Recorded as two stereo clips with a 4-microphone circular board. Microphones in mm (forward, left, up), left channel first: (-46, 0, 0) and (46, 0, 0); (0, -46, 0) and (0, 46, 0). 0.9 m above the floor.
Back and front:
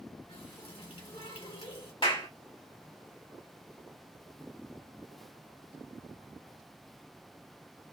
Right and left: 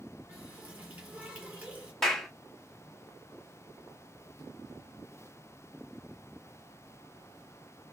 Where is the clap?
175° right, 1.9 m.